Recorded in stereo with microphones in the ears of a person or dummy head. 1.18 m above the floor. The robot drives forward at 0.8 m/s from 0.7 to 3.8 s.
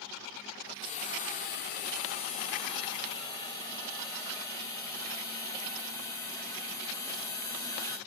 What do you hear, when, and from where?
0.8 s a hiss: 30° left (ahead or behind), 1.1 m; by 8.0 s 15° left (ahead or behind), 2.0 m